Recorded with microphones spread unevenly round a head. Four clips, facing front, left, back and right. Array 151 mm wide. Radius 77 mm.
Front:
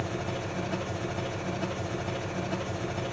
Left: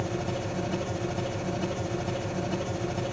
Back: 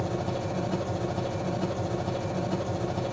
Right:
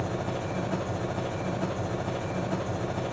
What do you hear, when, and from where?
0.0 s an engine running: 155° right, 0.7 m